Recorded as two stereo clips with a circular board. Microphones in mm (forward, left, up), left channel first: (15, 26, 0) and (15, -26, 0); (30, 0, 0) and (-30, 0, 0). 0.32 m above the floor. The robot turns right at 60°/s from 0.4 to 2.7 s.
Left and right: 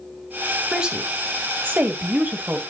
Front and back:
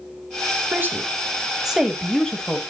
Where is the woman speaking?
160° right, 1.6 m; by 2.6 s 50° right, 1.6 m.